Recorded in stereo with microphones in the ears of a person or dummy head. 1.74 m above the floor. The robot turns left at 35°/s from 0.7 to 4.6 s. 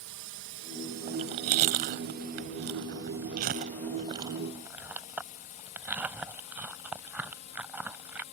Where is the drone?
65° right (ahead or behind); by 8.3 s 30° left (ahead or behind).